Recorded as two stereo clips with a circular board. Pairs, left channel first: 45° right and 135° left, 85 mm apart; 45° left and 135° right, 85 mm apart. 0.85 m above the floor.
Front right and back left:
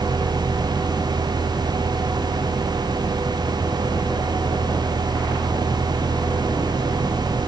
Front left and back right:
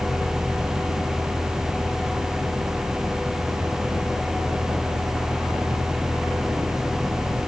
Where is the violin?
No violin in this recording.